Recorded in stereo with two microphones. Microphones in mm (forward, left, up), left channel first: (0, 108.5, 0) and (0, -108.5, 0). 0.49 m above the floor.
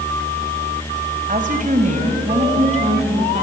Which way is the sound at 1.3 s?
40° right (ahead or behind).